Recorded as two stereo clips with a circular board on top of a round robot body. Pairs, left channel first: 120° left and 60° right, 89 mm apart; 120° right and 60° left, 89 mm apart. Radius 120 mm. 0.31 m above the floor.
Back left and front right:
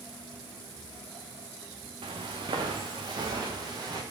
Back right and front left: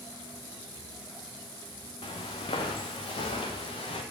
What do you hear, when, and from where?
2.0 s footsteps: 90° right, 2.5 m; by 4.0 s 105° right, 4 m